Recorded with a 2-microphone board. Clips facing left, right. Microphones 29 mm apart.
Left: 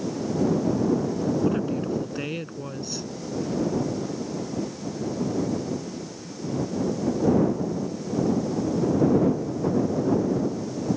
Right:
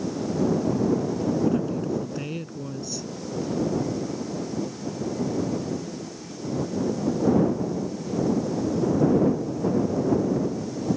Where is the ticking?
No ticking in this recording.